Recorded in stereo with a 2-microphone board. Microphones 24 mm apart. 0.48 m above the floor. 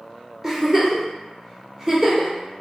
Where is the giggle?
15° right (ahead or behind), 1.2 m.